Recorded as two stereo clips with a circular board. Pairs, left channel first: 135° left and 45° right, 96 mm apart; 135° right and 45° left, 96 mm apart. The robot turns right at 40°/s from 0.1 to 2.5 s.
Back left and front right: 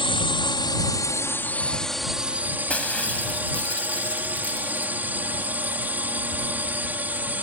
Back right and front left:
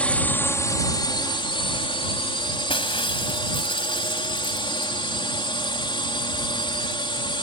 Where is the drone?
150° left; by 7.4 s 115° right.